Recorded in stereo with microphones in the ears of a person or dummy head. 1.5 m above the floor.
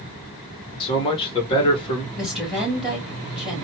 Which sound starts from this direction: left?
A man speaking, at 0.8 s.